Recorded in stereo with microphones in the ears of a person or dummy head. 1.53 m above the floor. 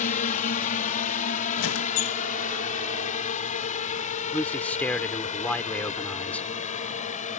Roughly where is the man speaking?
Centre.